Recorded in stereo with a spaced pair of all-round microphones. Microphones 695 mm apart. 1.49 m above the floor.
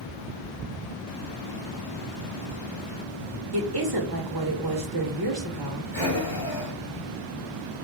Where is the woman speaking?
35° right (ahead or behind), 1.2 m.